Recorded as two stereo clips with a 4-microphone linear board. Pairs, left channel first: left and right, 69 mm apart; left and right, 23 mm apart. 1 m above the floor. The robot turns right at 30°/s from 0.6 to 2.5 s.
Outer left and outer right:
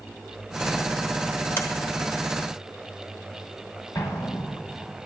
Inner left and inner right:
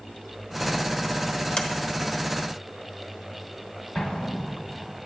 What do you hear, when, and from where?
1.6 s a sliding door: 40° left (ahead or behind), 1.0 m; by 1.7 s 35° left (ahead or behind), 1.0 m
4.0 s an explosion: 50° left (ahead or behind), 1.2 m